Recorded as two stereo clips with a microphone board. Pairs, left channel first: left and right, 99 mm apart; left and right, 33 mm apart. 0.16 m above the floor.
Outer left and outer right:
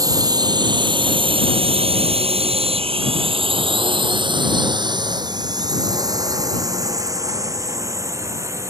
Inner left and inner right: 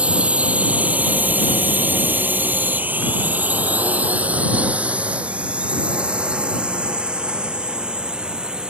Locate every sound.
0.0 s a drone: 35° right (ahead or behind); by 8.7 s 30° right (ahead or behind)